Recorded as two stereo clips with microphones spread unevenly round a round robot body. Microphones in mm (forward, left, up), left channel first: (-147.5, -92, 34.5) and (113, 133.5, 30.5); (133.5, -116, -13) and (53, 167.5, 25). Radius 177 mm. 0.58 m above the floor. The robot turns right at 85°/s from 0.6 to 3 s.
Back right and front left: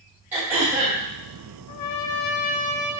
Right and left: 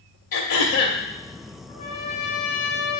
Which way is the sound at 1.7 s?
145° right.